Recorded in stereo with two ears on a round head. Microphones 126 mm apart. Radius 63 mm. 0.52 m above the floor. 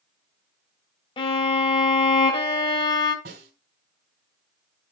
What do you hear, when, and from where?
1.2 s a violin: 35° left (ahead or behind), 1.4 m
3.2 s a snare drum: 70° right (ahead or behind), 2.5 m